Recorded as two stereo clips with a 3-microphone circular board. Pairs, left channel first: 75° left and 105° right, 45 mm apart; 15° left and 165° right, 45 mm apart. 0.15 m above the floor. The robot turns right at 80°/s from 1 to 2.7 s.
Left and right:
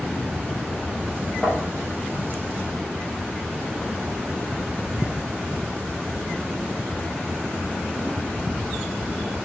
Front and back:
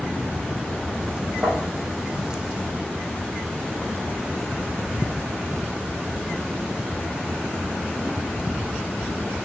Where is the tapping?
170° left, 3.5 m; by 1.6 s 175° right, 3.5 m.